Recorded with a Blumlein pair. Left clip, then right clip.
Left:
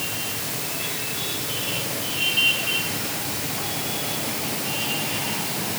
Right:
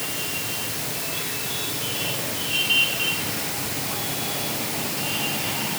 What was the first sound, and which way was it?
Only background noise.